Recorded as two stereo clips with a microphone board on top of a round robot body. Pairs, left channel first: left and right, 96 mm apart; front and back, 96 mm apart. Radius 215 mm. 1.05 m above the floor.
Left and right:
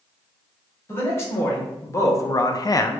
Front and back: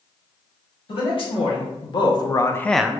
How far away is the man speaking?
About 1.3 m.